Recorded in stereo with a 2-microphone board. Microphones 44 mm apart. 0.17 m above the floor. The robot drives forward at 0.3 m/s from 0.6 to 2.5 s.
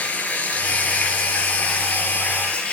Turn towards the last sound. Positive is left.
turn(degrees=30)  # may be behind; listen again after turning